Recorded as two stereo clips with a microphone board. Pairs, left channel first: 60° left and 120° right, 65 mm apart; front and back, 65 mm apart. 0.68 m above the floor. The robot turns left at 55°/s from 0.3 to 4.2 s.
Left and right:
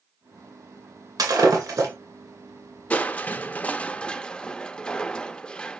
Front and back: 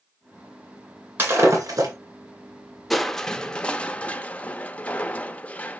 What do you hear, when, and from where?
1.2 s breaking glass: 125° right, 2.5 m; by 1.9 s 165° right, 2.5 m
2.9 s crushing: 85° left, 0.6 m; by 5.8 s 15° left, 0.6 m